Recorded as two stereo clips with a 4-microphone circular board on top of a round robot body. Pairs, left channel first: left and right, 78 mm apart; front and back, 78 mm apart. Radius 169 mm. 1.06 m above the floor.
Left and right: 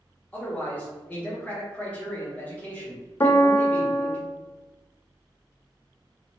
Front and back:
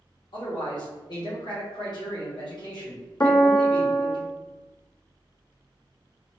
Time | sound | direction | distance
0.3 | a man speaking | 20° left | 1.9 m
3.2 | a piano | 50° left | 0.5 m